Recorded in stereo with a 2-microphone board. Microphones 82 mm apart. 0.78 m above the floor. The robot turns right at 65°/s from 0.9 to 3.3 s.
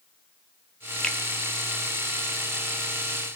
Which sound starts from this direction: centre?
A finger snap, at 1.0 s.